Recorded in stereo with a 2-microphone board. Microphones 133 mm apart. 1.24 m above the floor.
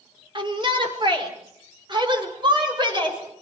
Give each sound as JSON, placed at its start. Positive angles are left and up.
{"t": 0.3, "sound": "a shout", "side_deg": -40, "distance_m": 4.5}